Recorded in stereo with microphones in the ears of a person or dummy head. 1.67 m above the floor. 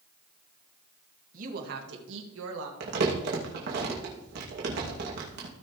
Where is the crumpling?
60° right (ahead or behind), 2.5 m.